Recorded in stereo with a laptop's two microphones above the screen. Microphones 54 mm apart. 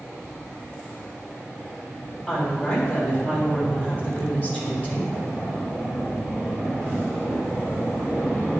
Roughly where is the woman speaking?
Left.